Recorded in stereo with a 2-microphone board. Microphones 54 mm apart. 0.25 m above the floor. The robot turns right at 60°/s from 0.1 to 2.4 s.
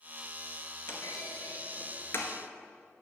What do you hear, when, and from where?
0.9 s a clunk: 55° left (ahead or behind), 1.7 m; by 2.3 s 40° left (ahead or behind), 1.7 m